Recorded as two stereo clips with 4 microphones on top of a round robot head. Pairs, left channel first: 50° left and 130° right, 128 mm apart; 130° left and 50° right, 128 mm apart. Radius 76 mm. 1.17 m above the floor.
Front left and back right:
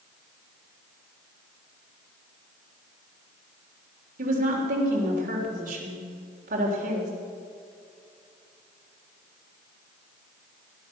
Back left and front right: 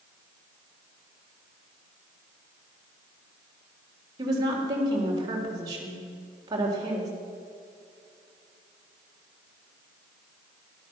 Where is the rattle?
I don't hear a rattle.